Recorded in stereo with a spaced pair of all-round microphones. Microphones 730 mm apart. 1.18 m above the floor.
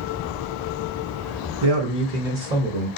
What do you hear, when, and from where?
1.6 s a man speaking: 45° right (ahead or behind), 0.8 m; by 2.9 s 70° right (ahead or behind), 1.5 m